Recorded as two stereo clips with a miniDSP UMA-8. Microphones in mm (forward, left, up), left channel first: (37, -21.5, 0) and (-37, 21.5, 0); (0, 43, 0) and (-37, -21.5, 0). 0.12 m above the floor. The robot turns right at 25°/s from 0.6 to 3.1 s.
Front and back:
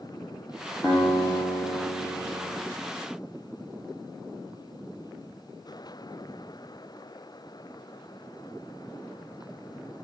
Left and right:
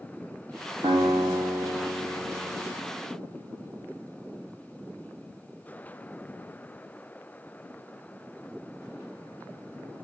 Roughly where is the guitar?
Behind right.